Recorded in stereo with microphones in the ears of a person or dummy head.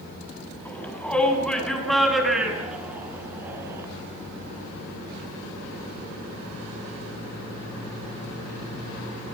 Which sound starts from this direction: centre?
A shout, at 0.7 s.